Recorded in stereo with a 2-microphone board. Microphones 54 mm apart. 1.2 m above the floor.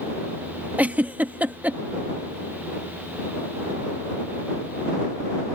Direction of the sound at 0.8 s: 30° right (ahead or behind).